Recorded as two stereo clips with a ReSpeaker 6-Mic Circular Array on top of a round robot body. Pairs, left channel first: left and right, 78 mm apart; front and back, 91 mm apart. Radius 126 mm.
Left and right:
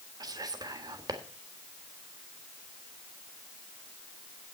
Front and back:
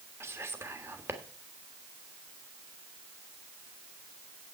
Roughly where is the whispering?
Behind right.